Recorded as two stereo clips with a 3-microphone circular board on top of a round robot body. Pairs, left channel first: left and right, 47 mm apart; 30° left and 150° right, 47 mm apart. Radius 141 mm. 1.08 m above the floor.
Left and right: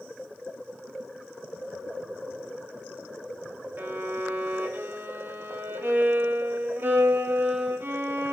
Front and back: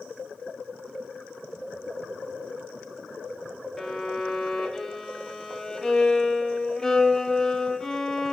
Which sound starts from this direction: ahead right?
A violin, at 3.8 s.